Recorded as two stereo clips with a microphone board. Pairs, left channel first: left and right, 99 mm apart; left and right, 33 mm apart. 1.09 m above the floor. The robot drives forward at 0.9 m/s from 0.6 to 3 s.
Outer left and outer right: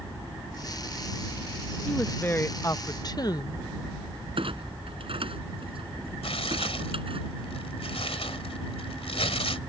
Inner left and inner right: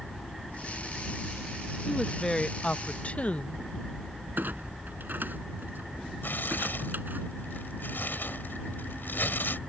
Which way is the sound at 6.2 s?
75° left (ahead or behind).